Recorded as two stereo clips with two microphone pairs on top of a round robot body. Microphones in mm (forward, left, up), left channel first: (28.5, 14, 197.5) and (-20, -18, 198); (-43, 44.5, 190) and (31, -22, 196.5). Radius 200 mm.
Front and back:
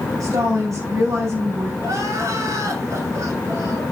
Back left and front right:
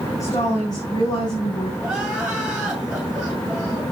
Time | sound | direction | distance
0.2 | a woman speaking | 165° right | 3.5 m
1.8 | crying | 125° right | 7.5 m